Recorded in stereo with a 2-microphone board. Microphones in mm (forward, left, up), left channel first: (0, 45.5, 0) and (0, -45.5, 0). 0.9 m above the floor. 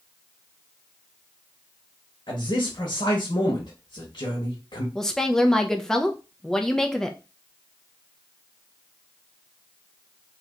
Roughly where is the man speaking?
Left.